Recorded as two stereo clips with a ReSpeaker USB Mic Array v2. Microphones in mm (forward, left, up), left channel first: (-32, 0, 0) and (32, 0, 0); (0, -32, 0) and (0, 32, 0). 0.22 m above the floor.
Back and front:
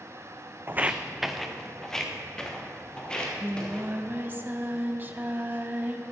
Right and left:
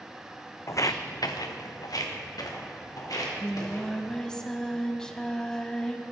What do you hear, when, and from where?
0.7 s footsteps: 50° right, 0.5 m; by 4.2 s 105° right, 4.5 m
3.1 s singing: 20° right, 0.7 m